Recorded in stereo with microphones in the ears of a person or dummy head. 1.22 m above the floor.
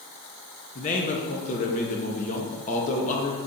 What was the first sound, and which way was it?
A man speaking, 35° left (ahead or behind).